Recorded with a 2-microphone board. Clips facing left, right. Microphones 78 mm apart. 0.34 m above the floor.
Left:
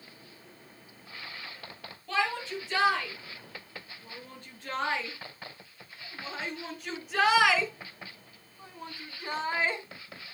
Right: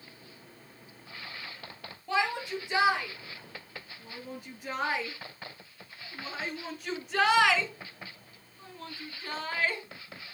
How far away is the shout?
About 6 m.